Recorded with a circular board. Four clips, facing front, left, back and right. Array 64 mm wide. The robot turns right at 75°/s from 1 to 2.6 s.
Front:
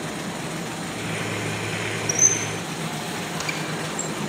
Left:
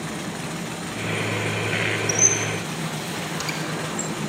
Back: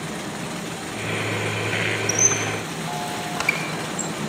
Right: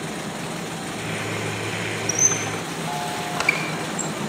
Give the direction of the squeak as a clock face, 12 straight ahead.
5 o'clock.